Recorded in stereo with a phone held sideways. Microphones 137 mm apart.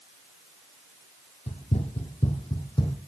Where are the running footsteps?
50° left (ahead or behind), 1.4 m; by 3.0 s 30° left (ahead or behind), 1.8 m.